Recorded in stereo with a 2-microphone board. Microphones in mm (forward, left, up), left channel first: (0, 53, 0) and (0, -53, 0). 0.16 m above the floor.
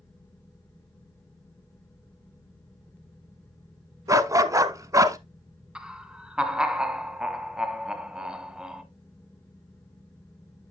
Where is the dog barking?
30° right (ahead or behind), 0.7 m.